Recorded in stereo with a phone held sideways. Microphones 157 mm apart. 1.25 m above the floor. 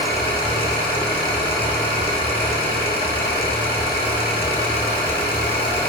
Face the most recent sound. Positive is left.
turn(degrees=70)  # may be behind; listen again after turning